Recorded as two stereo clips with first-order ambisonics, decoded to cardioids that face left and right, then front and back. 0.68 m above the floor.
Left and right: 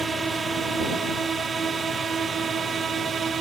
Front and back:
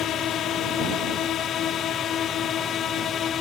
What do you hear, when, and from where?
0.0 s a drone: 25° right; by 3.4 s 40° right